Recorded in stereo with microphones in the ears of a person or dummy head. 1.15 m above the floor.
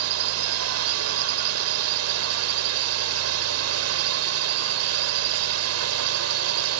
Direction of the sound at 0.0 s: 75° right (ahead or behind).